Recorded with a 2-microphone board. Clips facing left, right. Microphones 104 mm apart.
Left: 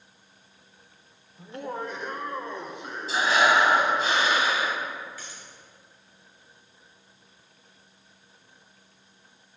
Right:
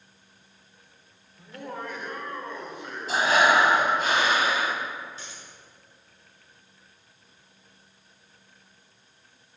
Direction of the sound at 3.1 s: 50° right (ahead or behind).